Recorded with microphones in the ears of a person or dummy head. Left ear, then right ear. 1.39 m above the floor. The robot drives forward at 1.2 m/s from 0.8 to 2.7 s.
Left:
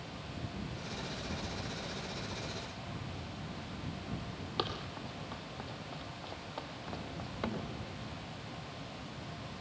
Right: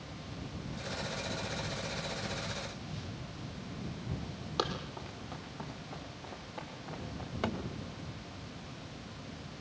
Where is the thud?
5° right (ahead or behind), 2.5 m.